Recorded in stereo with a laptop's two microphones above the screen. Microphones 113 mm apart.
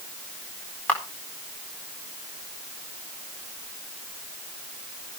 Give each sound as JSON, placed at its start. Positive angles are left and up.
{"t": 0.9, "sound": "a camera shutter", "side_deg": 10, "distance_m": 4.0}